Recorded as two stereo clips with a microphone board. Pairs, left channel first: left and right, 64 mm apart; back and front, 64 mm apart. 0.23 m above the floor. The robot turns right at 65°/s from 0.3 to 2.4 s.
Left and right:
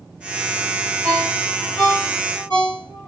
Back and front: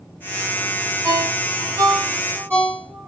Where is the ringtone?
25° right, 2.0 m; by 3.1 s 65° left, 2.0 m.